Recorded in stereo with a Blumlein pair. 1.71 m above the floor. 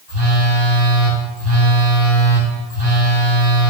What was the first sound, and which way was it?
A phone buzzing, 30° right.